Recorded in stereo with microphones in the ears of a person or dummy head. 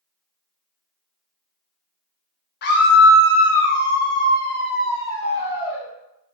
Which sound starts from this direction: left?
A scream, at 2.6 s.